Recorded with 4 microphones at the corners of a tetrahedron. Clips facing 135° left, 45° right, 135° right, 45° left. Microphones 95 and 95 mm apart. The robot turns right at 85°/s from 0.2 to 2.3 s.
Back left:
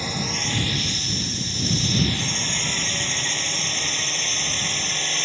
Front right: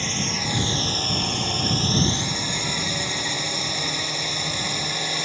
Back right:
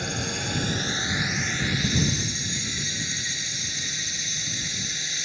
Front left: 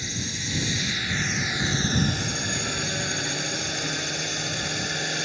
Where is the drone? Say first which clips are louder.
Even, back right 4 dB; 145° right; by 5.2 s 35° left.